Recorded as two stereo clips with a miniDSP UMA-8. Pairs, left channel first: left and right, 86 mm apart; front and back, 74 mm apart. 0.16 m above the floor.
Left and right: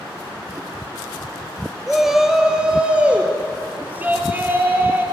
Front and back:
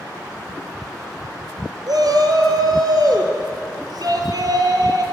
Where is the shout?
Straight behind, 3 m; by 5.0 s 155° right, 4.5 m.